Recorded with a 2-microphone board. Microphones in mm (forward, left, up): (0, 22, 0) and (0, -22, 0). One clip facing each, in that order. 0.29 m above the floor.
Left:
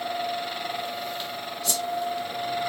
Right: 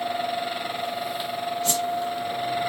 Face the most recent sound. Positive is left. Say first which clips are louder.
# right 2 dB
turn(degrees=-45)  # may be behind; listen again after turning